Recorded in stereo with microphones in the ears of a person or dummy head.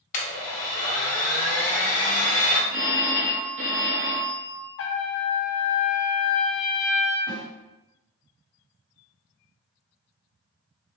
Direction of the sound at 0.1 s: 45° left (ahead or behind).